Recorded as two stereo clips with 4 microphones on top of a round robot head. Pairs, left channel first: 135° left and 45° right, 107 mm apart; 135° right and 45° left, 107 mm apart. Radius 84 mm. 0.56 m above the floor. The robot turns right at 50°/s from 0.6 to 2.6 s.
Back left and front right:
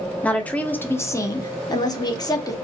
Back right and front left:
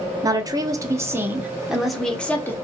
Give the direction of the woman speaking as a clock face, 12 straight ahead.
10 o'clock.